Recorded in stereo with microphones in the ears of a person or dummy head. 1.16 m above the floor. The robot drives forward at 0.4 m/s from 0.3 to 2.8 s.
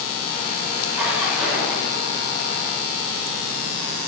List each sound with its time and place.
0.9 s a splash: 5° right (ahead or behind), 1.2 m; by 2.0 s centre (ahead or behind), 1.6 m